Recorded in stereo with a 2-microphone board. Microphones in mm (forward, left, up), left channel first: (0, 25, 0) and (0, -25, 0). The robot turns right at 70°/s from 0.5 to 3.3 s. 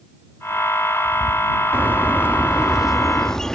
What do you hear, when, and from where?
1.7 s a bird: 90° right; by 3.5 s 20° left